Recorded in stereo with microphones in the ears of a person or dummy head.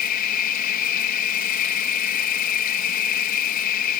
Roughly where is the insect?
Left.